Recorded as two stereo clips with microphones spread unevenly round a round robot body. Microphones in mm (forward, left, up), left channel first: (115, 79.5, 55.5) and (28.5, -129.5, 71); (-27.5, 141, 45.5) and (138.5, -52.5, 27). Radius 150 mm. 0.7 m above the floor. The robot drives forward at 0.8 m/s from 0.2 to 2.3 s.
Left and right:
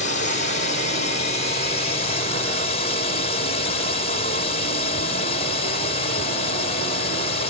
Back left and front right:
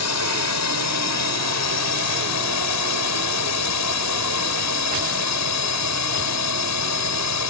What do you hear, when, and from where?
0.0 s a drone: 125° left; by 7.5 s 130° left